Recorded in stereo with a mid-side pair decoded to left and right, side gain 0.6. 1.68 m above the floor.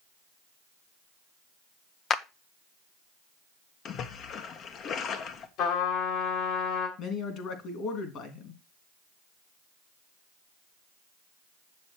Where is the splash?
50° left, 1.4 m.